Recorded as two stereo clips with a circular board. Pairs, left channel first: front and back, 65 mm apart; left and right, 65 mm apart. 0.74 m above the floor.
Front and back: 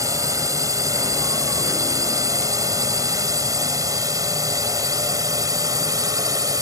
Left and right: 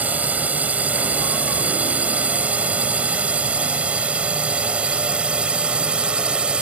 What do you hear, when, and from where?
0.0 s a drone: 155° right; by 6.6 s 165° right